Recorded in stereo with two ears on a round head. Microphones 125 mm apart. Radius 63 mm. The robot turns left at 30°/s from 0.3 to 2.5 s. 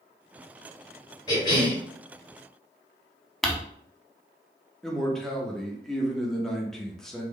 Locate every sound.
1.3 s a cough: 30° left (ahead or behind), 2 m; by 1.8 s 40° left (ahead or behind), 2 m
3.4 s crumpling: 5° left (ahead or behind), 0.5 m
4.8 s a man speaking: centre (ahead or behind), 0.7 m